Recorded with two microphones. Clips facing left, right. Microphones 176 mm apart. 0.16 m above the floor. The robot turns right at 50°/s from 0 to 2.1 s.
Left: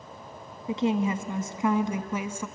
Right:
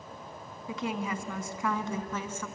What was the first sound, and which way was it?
A woman speaking, 25° left (ahead or behind).